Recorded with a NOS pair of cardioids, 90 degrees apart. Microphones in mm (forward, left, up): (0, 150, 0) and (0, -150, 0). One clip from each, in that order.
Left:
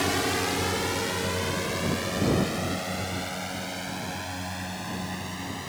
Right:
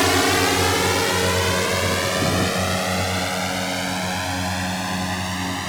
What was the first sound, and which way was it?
A drone, 55° right.